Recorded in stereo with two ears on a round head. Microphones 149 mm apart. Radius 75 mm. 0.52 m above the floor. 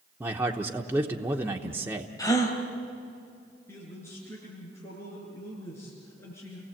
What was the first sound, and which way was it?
A man speaking, 15° right (ahead or behind).